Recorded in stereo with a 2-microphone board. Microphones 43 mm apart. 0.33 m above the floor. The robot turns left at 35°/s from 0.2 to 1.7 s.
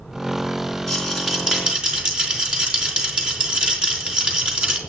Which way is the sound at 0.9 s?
5° left (ahead or behind).